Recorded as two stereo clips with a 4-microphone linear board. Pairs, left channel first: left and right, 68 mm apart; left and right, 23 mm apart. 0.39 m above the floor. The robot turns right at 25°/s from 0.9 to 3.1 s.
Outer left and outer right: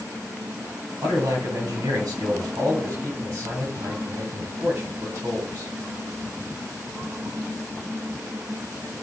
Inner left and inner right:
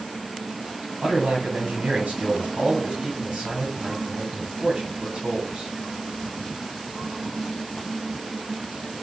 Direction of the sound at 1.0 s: 100° right.